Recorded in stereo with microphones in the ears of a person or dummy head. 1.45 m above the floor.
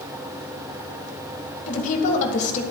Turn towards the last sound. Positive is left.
turn(degrees=40)  # may be behind; listen again after turning